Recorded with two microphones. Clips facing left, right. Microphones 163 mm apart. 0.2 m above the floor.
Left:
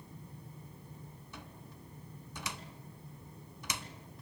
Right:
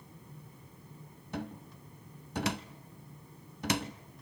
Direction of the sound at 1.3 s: 60° right (ahead or behind).